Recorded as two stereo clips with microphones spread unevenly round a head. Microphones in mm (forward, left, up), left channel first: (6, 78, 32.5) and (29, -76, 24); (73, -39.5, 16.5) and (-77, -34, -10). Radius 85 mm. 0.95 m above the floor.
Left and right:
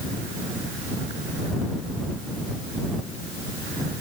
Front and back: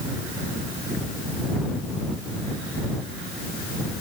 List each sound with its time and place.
Only background noise.